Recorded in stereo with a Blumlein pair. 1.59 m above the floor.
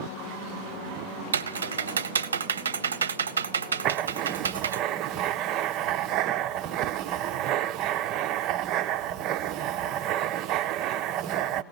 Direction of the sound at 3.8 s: 35° right.